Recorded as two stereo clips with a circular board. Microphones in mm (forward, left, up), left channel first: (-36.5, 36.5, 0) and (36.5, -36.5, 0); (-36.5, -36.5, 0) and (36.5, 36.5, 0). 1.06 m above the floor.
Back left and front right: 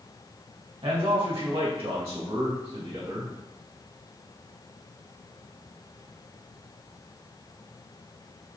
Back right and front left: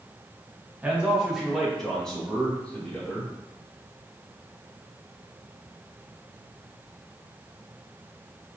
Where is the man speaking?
30° right, 1.3 m; by 3.3 s 65° right, 2 m.